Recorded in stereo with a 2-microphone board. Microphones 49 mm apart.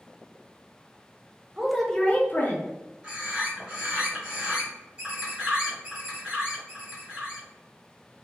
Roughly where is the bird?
Right.